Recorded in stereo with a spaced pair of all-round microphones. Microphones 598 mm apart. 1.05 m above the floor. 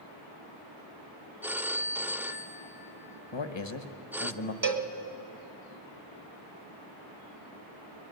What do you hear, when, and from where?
1.4 s a phone ringing: 5° right (ahead or behind), 0.5 m
3.3 s a man speaking: 50° left (ahead or behind), 1.3 m
4.6 s a cowbell: 40° right (ahead or behind), 1.2 m